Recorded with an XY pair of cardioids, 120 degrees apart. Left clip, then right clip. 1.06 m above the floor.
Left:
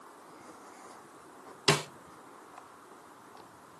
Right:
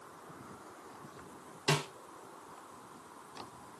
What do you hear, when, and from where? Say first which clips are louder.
1.7 s a snare drum: left 5 dB; 45° left, 1.2 m